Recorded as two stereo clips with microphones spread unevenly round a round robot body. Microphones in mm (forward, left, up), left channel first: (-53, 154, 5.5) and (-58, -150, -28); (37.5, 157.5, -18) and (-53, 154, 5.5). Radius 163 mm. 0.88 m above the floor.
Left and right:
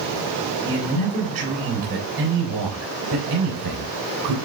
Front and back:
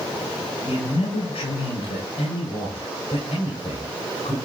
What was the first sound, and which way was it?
A man speaking, 15° right.